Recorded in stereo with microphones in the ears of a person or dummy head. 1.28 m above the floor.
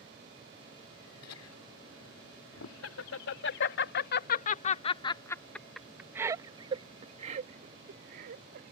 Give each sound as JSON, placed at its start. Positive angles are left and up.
{"t": 1.2, "sound": "laughter", "side_deg": 80}